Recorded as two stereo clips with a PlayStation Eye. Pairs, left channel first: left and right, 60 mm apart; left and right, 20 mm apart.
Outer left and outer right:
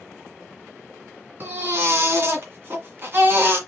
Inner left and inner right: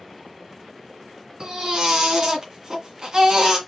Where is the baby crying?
45° right (ahead or behind), 1.7 m.